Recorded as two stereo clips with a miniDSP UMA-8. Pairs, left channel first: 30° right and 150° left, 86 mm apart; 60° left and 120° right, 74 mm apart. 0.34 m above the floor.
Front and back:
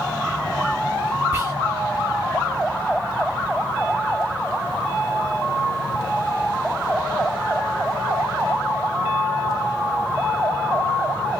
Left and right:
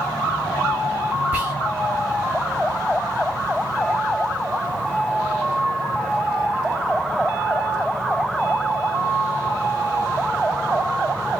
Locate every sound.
1.3 s whispering: 170° right, 1.1 m